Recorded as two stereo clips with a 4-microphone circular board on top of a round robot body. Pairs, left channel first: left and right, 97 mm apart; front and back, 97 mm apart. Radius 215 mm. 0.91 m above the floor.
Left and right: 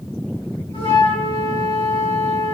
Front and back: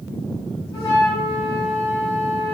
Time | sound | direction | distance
0.7 | a flute | 50° left | 3 m